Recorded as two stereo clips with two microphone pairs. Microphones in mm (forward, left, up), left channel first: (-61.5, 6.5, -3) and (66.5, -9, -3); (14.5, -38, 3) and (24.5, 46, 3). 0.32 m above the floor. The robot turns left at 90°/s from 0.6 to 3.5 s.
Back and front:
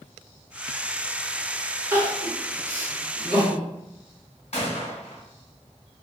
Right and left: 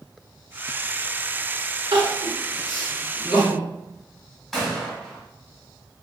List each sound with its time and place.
1.9 s crying: 70° left, 0.9 m; by 3.6 s 75° right, 0.9 m
4.5 s a gunshot: 175° left, 1.0 m